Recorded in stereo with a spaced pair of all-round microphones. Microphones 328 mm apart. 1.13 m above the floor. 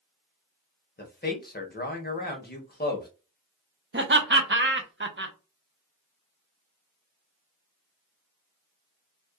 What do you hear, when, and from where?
1.0 s a man speaking: 30° left (ahead or behind), 0.7 m
3.9 s laughter: 35° right (ahead or behind), 0.5 m